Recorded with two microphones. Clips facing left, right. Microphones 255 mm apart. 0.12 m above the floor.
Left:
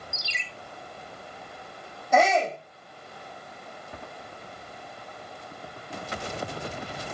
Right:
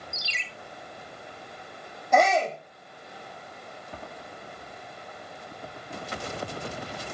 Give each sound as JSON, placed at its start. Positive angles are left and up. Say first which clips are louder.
{"t": 0.1, "sound": "a ringtone", "louder": "even", "side_deg": 60, "distance_m": 1.1}
{"t": 2.1, "sound": "a shout", "louder": "even", "side_deg": 5, "distance_m": 5.5}